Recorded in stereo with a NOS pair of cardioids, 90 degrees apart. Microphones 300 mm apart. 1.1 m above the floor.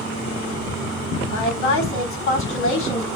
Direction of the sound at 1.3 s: 70° left.